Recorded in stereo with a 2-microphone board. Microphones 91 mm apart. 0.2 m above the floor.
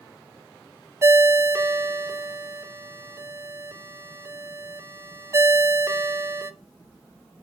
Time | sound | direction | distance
1.0 | a ringtone | 30° right (ahead or behind) | 0.8 m